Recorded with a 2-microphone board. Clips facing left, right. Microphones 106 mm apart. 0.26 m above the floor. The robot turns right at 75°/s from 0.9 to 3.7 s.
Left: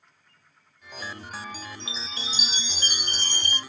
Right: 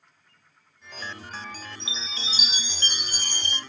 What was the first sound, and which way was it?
A chime, 85° left.